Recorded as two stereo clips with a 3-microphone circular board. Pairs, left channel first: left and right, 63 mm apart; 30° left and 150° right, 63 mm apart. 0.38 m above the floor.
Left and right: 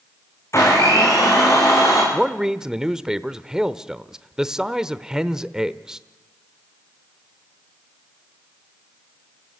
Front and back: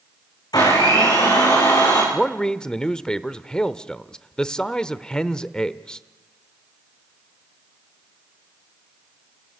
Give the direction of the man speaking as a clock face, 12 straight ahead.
1 o'clock.